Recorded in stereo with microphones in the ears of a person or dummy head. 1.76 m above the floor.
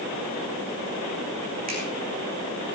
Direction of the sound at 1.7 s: 45° right (ahead or behind).